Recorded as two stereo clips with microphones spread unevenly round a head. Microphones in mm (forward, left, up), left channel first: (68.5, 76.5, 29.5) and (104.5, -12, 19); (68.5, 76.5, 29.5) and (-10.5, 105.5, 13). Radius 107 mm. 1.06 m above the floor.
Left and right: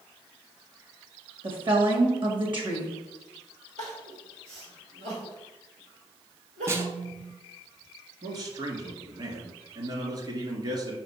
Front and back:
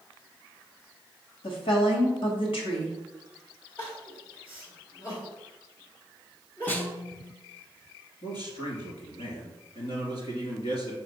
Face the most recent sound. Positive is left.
turn(degrees=-25)